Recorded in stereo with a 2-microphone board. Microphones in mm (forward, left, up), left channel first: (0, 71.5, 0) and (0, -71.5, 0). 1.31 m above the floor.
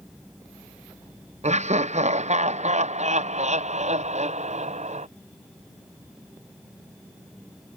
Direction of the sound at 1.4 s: 50° right (ahead or behind).